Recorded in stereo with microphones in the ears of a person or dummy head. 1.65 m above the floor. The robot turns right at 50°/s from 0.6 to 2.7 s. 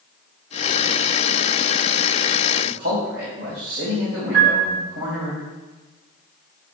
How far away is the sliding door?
I don't hear a sliding door.